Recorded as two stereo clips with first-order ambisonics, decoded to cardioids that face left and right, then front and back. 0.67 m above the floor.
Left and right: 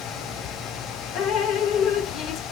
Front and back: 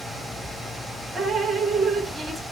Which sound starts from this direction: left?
Dripping, at 1.1 s.